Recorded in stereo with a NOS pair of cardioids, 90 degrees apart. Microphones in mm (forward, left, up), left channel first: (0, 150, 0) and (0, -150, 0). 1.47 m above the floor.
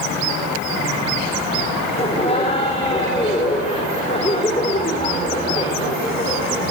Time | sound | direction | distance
2.0 | laughter | 20° left | 4.5 m